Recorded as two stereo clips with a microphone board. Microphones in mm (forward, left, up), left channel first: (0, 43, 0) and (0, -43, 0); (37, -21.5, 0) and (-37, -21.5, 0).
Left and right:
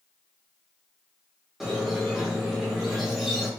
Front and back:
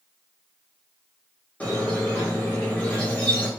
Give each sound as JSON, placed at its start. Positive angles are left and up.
{"t": 1.6, "sound": "a squeak", "azimuth_deg": -10, "distance_m": 1.1}